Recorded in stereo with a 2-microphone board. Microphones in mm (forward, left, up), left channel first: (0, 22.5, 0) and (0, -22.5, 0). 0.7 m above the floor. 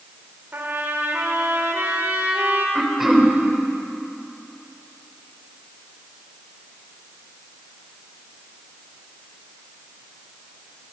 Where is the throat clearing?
10° right (ahead or behind), 3 m.